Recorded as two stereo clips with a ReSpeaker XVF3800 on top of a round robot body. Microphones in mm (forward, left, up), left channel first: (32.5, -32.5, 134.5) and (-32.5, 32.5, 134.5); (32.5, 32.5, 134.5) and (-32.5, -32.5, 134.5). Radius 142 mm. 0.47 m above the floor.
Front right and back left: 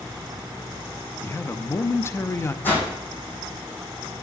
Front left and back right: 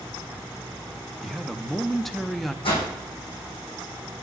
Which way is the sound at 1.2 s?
40° right.